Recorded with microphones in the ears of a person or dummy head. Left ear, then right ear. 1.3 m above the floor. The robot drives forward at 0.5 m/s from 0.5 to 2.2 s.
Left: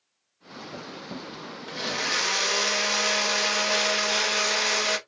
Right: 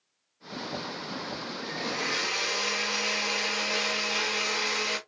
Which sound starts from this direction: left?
A blender, at 1.7 s.